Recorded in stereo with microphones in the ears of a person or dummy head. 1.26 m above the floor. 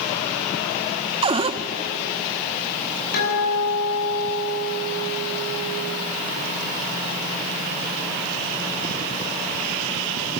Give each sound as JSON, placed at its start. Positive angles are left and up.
{"t": 1.2, "sound": "a cupboard door", "side_deg": -25, "distance_m": 0.8}
{"t": 3.1, "sound": "a guitar", "side_deg": 55, "distance_m": 7.0}